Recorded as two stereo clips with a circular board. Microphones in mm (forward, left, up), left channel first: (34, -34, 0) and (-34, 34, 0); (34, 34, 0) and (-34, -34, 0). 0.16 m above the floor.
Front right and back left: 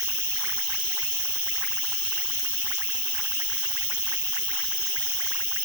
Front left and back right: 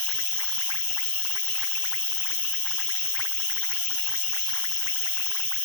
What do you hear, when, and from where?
0.0 s an insect: 65° right